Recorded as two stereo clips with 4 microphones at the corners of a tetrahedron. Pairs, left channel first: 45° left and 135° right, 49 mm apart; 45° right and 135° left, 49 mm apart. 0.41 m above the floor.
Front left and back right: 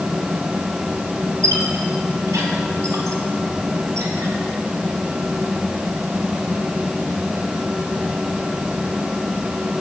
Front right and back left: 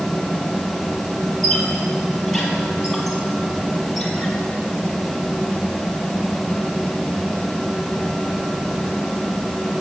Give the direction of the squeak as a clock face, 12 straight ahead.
4 o'clock.